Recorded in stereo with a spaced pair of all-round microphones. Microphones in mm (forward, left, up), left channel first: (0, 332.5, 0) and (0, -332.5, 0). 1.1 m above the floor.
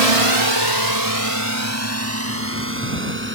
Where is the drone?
60° right (ahead or behind); by 3.4 s 15° right (ahead or behind).